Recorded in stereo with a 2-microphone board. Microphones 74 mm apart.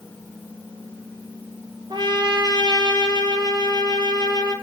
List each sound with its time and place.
1.9 s a trumpet: 80° right, 0.9 m